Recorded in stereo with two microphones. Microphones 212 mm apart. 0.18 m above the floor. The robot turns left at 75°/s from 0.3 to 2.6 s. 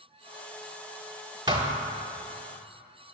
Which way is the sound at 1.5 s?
20° right (ahead or behind).